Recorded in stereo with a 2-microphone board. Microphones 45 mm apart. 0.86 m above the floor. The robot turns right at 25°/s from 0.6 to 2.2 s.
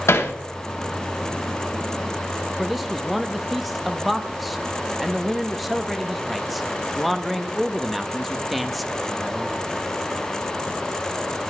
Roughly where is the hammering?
Left.